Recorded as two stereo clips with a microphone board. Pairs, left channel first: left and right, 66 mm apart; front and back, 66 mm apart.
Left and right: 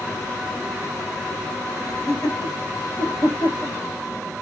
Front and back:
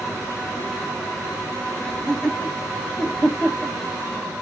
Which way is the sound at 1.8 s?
75° left.